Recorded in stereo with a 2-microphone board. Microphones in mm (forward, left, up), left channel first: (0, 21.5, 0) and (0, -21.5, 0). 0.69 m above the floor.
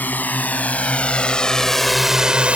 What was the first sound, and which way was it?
A drone, 45° left (ahead or behind).